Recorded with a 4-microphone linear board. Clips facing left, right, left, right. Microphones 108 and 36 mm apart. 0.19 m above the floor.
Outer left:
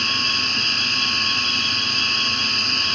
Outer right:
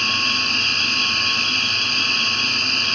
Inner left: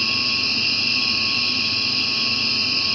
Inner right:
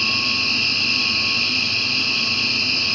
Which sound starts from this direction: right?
An insect, at 0.0 s.